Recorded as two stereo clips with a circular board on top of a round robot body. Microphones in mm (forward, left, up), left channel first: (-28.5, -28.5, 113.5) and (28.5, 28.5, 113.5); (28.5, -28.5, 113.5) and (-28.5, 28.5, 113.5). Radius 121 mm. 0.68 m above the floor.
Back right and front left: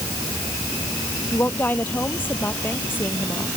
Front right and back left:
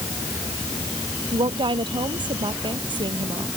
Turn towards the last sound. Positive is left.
turn(degrees=160)